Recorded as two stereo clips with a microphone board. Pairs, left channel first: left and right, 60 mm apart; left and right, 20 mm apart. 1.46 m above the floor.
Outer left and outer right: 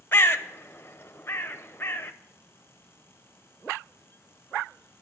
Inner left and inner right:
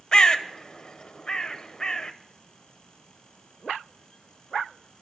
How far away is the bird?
About 0.8 m.